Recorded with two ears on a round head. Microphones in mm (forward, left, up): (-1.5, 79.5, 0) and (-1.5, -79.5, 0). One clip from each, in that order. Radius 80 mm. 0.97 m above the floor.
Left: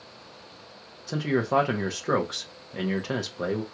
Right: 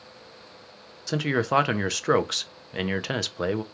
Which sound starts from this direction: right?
A man speaking, at 1.1 s.